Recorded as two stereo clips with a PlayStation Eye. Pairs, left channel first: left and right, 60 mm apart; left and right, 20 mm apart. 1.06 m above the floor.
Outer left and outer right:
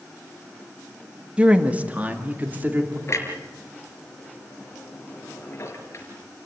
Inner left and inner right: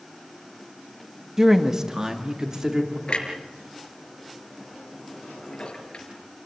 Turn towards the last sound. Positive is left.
turn(degrees=45)  # may be behind; listen again after turning